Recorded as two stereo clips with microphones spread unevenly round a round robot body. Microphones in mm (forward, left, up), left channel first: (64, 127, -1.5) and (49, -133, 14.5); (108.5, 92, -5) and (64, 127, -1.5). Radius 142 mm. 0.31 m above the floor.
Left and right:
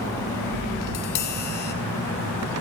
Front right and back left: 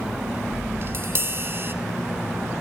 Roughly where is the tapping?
Left.